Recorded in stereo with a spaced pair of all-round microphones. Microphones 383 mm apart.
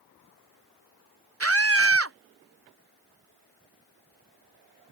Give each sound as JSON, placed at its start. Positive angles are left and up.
{"t": 1.4, "sound": "a scream", "side_deg": -35}